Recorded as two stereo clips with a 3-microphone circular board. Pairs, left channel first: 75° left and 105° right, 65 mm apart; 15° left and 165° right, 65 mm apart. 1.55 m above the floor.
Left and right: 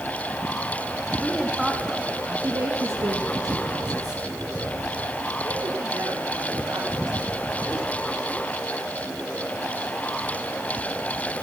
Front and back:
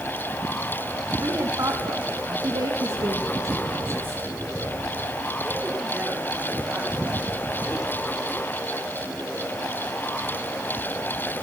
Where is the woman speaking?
155° left, 2.5 m; by 8.0 s 90° right, 9.5 m.